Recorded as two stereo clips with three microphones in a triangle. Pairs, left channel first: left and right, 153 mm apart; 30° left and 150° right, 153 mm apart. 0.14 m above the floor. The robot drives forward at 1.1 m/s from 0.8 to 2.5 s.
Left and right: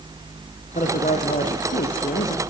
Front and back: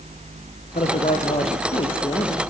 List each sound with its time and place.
0.8 s a man speaking: 60° left, 4 m; by 2.4 s 90° left, 3.5 m